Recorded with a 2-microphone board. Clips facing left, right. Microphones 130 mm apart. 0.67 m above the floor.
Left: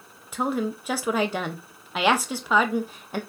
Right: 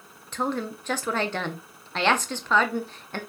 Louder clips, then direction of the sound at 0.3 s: Left 2 dB; 10° left (ahead or behind).